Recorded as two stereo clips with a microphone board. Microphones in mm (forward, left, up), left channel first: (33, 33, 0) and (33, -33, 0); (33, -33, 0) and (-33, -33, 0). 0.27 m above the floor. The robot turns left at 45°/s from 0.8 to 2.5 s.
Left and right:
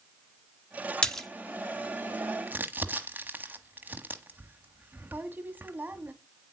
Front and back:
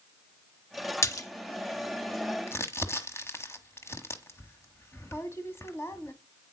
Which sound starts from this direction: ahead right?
Crumpling, at 2.5 s.